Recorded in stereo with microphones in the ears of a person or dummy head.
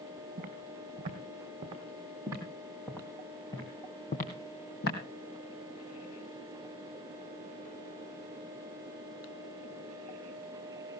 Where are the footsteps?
45° right (ahead or behind), 3.5 m; by 5.0 s 50° left (ahead or behind), 2.5 m.